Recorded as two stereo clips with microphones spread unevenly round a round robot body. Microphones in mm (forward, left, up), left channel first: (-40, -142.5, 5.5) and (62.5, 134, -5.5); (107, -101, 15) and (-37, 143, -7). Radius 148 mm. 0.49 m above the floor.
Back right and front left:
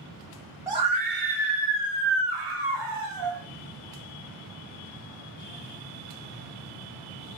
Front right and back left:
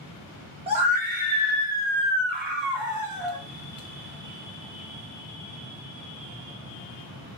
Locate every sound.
0.7 s a scream: 130° left, 0.9 m; by 3.4 s 65° left, 3 m